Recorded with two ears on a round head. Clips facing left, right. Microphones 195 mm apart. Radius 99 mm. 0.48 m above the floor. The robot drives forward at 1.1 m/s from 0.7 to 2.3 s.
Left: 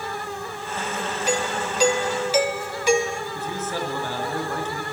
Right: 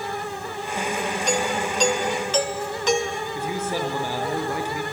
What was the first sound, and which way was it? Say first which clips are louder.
A doorbell: even; 5° left (ahead or behind).